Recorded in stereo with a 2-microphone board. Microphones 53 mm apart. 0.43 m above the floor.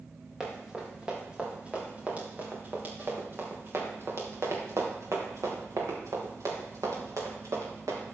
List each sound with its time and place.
0.4 s running footsteps: 10° right (ahead or behind), 4 m; by 8.2 s 80° right, 5 m